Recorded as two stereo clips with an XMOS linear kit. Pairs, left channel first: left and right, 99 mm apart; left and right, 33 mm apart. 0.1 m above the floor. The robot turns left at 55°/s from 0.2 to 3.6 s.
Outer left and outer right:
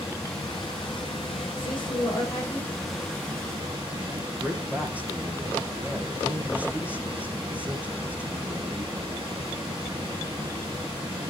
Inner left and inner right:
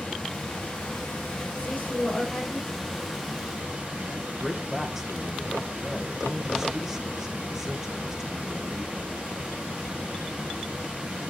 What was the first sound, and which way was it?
Running water, 145° left.